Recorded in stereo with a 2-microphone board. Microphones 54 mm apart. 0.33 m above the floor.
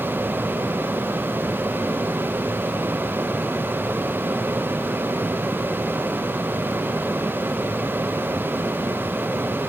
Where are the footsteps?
I don't hear footsteps.